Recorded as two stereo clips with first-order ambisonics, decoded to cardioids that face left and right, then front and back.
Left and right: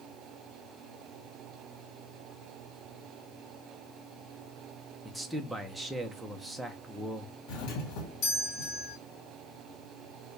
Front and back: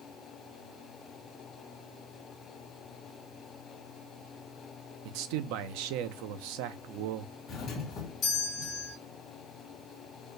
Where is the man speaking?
175° right, 0.7 m.